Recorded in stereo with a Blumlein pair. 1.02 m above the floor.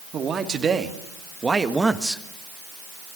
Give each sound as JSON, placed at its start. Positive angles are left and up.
{"t": 0.1, "sound": "a man speaking", "azimuth_deg": -20, "distance_m": 3.0}